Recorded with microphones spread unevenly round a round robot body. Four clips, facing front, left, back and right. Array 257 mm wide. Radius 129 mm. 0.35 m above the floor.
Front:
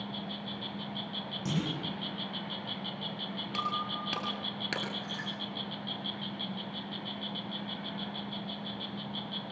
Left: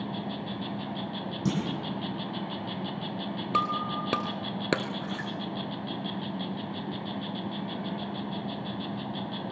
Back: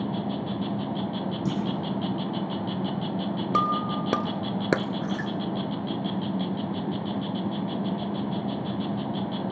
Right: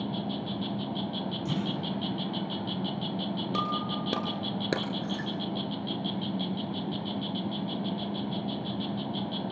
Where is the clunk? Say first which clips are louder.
Left 4 dB, back 3 dB; 120° left, 9.5 m.